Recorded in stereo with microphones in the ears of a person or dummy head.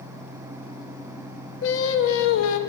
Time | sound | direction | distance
1.6 | singing | 80° left | 0.8 m